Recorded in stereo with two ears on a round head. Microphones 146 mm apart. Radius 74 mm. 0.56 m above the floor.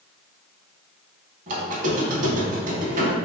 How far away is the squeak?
About 0.6 m.